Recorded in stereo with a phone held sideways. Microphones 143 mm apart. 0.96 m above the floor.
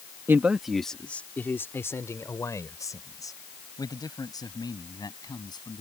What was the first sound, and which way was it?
A man speaking, 15° right (ahead or behind).